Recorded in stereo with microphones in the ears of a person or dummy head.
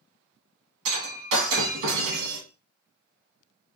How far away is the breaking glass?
About 1.4 m.